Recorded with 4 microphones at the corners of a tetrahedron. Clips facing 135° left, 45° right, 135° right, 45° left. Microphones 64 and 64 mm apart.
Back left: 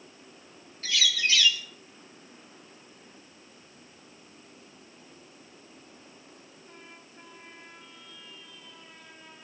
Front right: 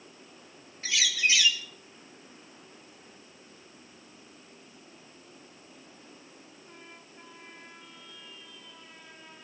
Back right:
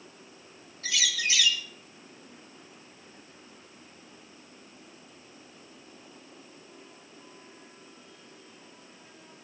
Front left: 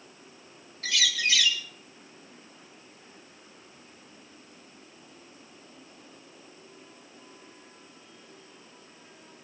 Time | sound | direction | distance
0.8 | a bird | 30° left | 1.7 m